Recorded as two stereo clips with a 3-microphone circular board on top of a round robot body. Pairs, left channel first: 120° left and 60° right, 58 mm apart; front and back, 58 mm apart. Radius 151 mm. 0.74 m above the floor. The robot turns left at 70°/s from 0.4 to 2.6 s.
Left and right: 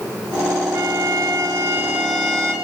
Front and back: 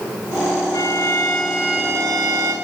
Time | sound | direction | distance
0.7 | a violin | 35° right | 8.5 m